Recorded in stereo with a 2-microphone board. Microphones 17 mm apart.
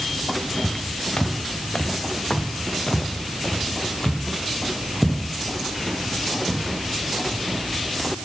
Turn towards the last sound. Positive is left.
turn(degrees=0)  # may be behind; listen again after turning